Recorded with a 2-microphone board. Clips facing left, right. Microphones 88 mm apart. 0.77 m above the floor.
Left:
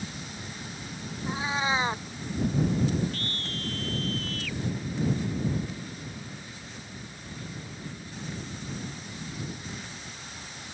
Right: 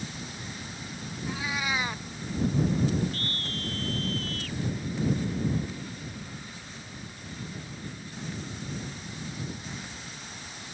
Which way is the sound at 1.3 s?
30° left (ahead or behind).